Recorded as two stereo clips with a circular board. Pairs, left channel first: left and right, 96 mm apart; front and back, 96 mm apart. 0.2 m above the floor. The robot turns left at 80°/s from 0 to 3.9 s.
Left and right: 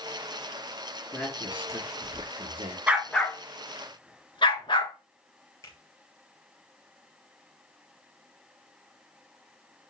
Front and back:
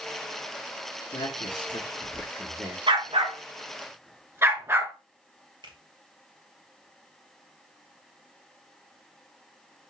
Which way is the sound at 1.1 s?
20° left.